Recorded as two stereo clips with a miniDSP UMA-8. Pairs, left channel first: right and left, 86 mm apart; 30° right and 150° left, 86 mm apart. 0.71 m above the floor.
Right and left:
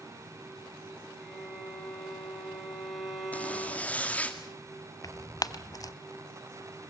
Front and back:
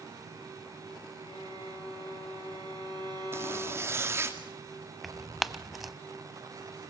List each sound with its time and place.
1.2 s a violin: straight behind, 6.5 m
3.3 s a zipper: 160° right, 1.8 m
5.0 s tearing paper: 125° right, 0.8 m